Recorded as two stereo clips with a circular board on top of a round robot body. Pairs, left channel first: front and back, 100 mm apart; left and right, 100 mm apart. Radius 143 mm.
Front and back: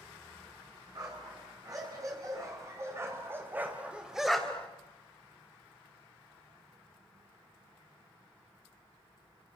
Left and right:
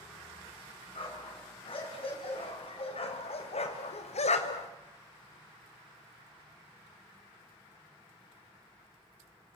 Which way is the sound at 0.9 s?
125° left.